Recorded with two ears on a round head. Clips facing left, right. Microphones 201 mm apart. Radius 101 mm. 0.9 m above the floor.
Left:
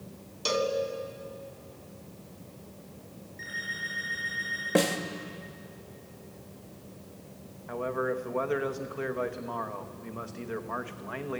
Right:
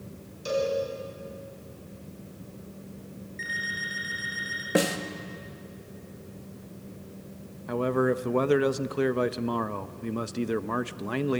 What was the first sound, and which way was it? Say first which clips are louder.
A cowbell: right 2 dB; 80° left.